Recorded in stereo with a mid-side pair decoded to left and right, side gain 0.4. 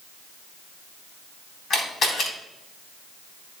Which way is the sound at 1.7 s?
65° left.